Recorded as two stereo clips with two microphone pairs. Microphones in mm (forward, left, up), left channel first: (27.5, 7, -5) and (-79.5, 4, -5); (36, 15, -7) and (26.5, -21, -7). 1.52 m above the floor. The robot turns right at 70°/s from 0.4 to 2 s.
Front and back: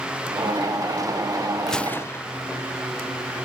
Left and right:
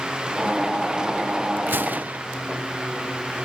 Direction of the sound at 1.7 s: 90° right.